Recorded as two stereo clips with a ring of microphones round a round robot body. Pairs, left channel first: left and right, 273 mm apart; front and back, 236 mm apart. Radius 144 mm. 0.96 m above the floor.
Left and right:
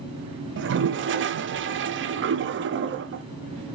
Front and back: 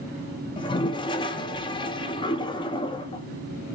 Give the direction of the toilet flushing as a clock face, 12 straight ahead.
2 o'clock.